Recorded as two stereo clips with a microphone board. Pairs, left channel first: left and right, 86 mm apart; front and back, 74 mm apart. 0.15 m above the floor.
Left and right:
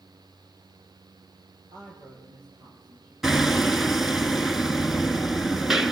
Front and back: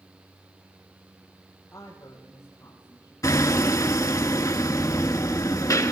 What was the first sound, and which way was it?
A woman speaking, 50° right.